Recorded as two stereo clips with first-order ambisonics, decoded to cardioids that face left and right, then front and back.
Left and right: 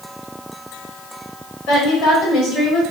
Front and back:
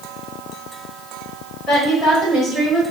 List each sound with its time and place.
1.7 s a woman speaking: 75° left, 1.9 m